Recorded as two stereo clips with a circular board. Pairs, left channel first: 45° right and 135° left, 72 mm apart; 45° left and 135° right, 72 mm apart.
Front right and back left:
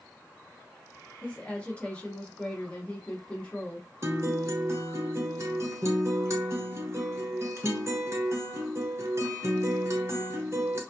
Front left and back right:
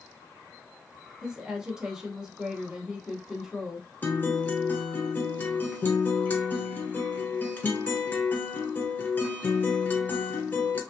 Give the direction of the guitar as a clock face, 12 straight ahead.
9 o'clock.